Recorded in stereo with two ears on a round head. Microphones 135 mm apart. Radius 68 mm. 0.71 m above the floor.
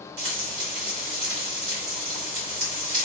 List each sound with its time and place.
0.2 s frying: 60° right (ahead or behind), 2 m